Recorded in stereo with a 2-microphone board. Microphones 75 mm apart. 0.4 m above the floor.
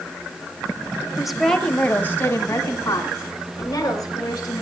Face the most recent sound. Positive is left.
turn(degrees=50)  # may be behind; listen again after turning